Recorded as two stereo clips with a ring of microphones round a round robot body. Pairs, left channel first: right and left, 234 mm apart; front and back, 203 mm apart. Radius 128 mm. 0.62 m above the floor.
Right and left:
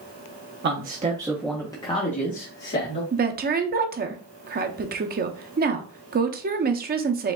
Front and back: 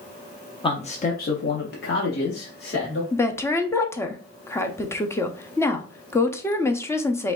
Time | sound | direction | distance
0.6 | a man speaking | 60° left | 0.9 m
3.1 | a woman speaking | 70° left | 0.8 m